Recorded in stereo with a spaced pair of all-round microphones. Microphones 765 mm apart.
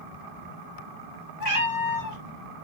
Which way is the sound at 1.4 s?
45° left (ahead or behind).